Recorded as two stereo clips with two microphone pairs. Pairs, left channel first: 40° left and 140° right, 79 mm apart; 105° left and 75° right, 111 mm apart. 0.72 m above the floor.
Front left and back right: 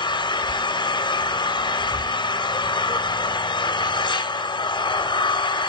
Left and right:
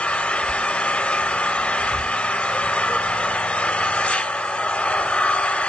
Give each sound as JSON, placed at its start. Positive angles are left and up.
{"t": 0.0, "sound": "an engine running", "azimuth_deg": 20, "distance_m": 0.7}